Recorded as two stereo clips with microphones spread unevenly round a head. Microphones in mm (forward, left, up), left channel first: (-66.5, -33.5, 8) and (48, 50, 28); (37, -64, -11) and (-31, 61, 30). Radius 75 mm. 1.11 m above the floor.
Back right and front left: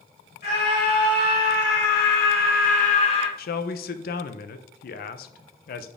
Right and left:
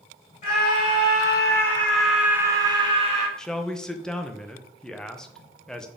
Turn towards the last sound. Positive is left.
turn(degrees=-140)